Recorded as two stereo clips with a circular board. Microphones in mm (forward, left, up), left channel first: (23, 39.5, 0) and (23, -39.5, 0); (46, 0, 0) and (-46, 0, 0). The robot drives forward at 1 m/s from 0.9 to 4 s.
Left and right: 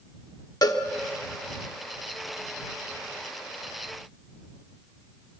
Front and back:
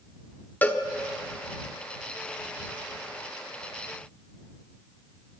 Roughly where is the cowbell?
Ahead left.